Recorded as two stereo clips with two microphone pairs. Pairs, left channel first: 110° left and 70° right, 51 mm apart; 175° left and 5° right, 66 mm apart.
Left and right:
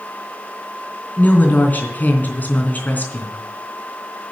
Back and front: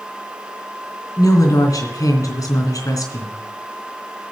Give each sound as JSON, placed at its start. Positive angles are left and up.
{"t": 1.2, "sound": "a woman speaking", "azimuth_deg": 160, "distance_m": 3.0}